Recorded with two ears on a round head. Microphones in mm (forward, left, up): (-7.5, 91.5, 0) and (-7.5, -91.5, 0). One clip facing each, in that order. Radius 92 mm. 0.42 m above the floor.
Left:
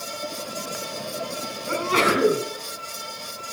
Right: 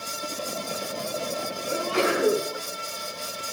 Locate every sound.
1.7 s a sneeze: 60° left (ahead or behind), 3.5 m